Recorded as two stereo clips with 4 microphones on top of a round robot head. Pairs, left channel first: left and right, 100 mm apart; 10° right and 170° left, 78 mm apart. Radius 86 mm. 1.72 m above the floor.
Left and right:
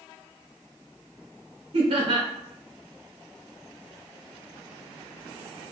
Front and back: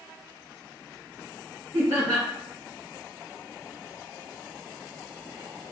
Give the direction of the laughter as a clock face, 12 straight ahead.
4 o'clock.